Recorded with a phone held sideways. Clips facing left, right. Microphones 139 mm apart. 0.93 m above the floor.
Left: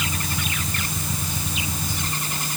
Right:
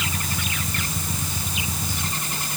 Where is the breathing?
No breathing in this recording.